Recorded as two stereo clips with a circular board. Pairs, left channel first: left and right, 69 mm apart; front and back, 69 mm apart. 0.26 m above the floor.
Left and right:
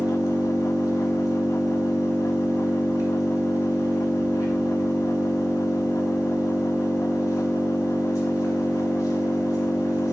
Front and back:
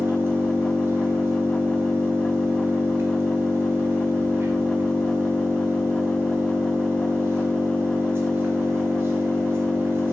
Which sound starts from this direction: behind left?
An engine running, at 0.0 s.